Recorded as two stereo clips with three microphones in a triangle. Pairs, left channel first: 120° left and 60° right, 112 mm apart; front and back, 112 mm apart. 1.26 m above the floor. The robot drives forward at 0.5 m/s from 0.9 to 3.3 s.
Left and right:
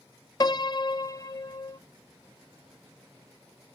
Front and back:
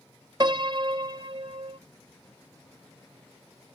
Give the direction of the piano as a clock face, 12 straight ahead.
7 o'clock.